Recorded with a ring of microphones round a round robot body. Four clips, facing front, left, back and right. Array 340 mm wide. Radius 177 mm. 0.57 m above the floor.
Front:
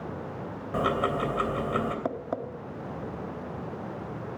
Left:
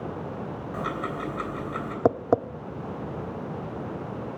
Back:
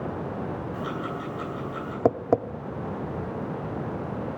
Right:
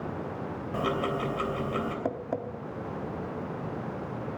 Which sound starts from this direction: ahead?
Ticking, at 0.7 s.